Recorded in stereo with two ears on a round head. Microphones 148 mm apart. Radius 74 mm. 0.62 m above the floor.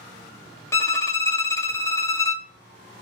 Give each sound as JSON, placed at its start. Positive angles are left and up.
{"t": 0.7, "sound": "a violin", "side_deg": 15, "distance_m": 0.6}